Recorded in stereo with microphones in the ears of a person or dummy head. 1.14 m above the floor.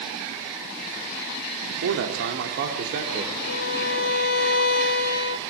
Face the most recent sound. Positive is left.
turn(degrees=50)  # may be behind; listen again after turning